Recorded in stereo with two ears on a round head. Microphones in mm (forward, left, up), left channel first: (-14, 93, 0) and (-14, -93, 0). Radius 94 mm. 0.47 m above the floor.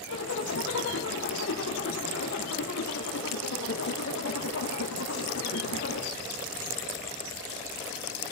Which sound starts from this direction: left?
A zipper, at 0.1 s.